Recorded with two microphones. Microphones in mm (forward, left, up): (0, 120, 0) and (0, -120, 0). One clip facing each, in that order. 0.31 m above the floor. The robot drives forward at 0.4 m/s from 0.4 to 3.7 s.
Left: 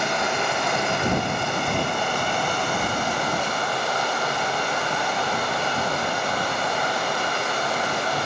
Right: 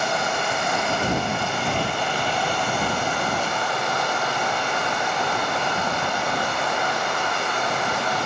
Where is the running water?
80° left, 1.2 m; by 8.3 s 35° left (ahead or behind), 2.0 m.